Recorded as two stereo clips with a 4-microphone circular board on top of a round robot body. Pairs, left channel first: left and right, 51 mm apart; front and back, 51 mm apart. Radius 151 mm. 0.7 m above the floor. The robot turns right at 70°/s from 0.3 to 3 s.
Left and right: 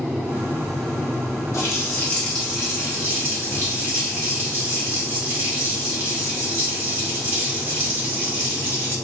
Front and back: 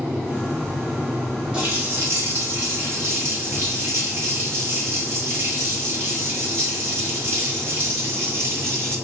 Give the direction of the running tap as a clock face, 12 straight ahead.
8 o'clock.